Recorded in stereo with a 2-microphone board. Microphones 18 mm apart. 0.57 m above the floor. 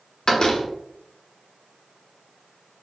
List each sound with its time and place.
0.3 s a door slam: 50° left (ahead or behind), 0.6 m